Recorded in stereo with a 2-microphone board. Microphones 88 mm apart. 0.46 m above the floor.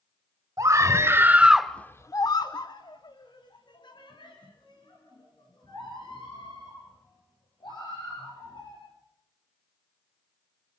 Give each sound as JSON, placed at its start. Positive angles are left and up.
{"t": 0.6, "sound": "a scream", "side_deg": -40, "distance_m": 1.8}